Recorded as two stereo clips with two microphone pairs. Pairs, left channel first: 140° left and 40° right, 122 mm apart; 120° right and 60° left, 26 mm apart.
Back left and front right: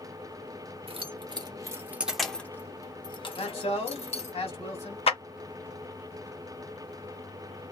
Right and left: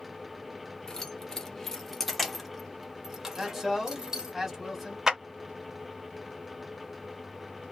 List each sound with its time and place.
0.9 s keys jangling: 60° right, 0.9 m; by 4.4 s 130° left, 1.2 m
3.4 s a man speaking: 145° left, 1.6 m
5.1 s a clap: 130° left, 1.0 m